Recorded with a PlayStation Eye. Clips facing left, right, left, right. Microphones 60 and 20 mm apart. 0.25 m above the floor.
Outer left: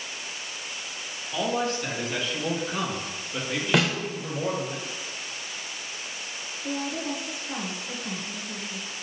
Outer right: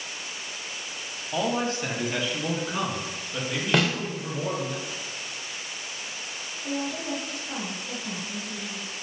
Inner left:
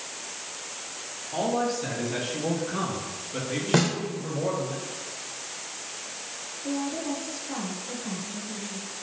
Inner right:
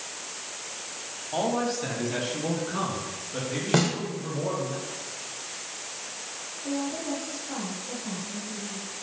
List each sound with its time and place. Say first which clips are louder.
1.3 s a man speaking: even, even; 35° right (ahead or behind), 1.1 m; by 4.7 s 5° left (ahead or behind), 4 m
3.7 s a snare drum: even, inner left 1 dB; centre (ahead or behind), 0.8 m
6.6 s a woman speaking: even, inner left 1 dB; 5° left (ahead or behind), 1.3 m